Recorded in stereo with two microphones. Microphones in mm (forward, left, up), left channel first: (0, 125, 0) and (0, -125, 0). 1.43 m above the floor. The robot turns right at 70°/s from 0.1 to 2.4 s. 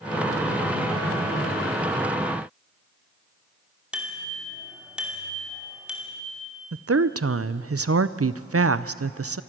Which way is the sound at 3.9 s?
5° right (ahead or behind).